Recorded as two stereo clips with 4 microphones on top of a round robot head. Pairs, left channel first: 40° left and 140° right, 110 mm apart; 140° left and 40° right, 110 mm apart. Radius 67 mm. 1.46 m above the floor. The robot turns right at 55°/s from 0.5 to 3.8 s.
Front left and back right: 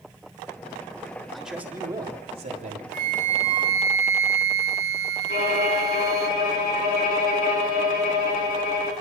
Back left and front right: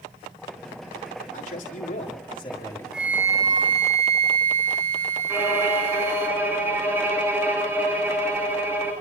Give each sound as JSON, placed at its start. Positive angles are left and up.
{"t": 1.3, "sound": "a man speaking", "azimuth_deg": 130, "distance_m": 7.0}
{"t": 2.9, "sound": "a flute", "azimuth_deg": -125, "distance_m": 2.5}
{"t": 5.3, "sound": "a violin", "azimuth_deg": 30, "distance_m": 8.0}